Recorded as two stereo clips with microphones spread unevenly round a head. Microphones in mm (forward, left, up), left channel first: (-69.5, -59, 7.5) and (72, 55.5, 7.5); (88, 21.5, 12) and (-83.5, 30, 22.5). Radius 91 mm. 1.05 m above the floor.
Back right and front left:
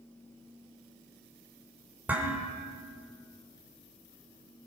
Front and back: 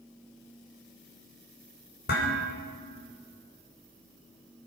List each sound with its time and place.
2.1 s dishes clattering: 45° right, 3 m